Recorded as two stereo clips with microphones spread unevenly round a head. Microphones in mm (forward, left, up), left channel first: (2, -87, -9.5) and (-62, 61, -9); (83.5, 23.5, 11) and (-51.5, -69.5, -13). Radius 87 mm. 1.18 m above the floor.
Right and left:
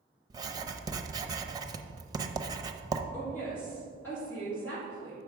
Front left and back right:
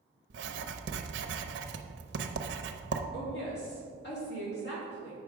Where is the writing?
Straight behind, 0.7 m.